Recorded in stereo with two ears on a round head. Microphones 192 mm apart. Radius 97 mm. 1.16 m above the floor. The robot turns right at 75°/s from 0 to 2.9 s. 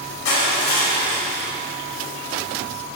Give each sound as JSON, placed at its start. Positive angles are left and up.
{"t": 0.2, "sound": "crushing", "azimuth_deg": 95, "distance_m": 2.5}